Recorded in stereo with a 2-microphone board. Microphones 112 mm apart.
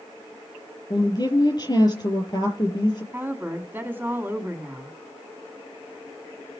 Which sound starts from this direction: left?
A woman speaking, at 0.9 s.